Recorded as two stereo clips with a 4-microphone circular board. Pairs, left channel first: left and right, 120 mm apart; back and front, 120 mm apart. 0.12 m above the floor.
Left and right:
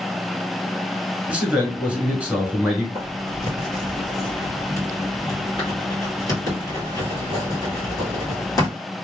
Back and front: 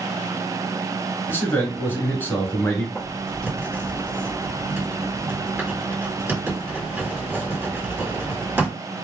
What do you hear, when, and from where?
1.3 s a man speaking: 150° right, 1.1 m
3.0 s writing: 60° left, 1.9 m